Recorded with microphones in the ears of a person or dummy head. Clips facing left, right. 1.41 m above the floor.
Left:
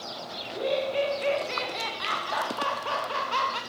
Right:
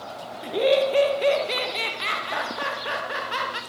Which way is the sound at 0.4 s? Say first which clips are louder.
Right 8 dB; 80° right.